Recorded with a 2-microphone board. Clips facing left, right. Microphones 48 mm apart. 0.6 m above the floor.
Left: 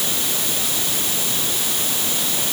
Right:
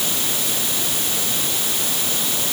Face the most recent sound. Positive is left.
No sound to turn to.